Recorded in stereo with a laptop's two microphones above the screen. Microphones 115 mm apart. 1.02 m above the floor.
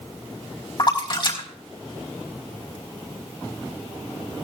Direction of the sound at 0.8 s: 45° left (ahead or behind).